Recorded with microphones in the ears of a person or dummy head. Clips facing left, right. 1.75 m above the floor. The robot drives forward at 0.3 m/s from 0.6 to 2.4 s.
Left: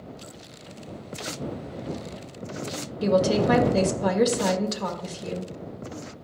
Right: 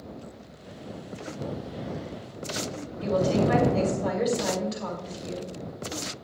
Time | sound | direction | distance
3.0 | a woman speaking | 55° left (ahead or behind) | 1.6 m